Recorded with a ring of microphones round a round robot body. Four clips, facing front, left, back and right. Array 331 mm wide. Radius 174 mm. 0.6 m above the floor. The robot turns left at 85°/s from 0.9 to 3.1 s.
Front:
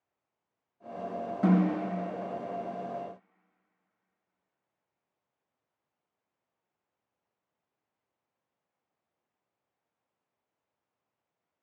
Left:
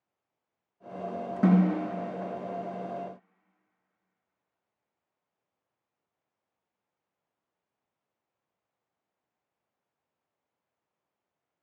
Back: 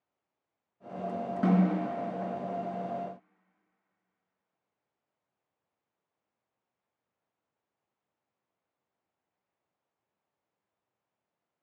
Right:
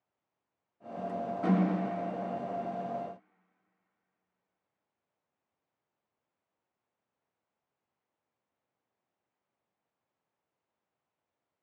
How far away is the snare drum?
About 4 m.